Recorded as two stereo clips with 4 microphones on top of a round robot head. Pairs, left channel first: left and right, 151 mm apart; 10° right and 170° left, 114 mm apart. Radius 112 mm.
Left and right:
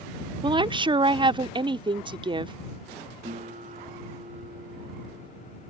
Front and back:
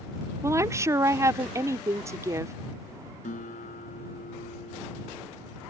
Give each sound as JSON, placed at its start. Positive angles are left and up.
{"t": 0.4, "sound": "a woman speaking", "azimuth_deg": -135}
{"t": 3.2, "sound": "a guitar", "azimuth_deg": -35}